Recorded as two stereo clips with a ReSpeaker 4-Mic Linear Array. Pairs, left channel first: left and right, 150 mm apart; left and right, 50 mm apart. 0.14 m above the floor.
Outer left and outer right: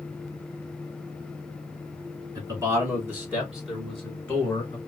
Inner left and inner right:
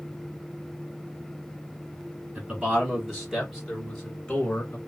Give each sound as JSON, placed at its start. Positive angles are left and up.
{"t": 2.4, "sound": "a man speaking", "side_deg": -25, "distance_m": 1.6}